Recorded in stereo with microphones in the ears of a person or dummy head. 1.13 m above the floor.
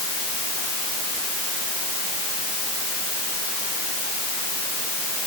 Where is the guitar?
No guitar in this recording.